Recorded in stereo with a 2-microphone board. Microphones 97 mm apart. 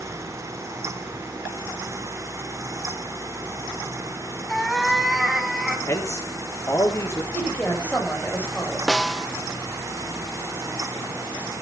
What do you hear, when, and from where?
4.5 s a cat meowing: 5° left (ahead or behind), 1.3 m; by 5.8 s 5° right (ahead or behind), 2 m
5.9 s a man speaking: 35° left (ahead or behind), 2.5 m
7.3 s a woman speaking: 15° left (ahead or behind), 5 m
8.9 s a snare drum: centre (ahead or behind), 0.7 m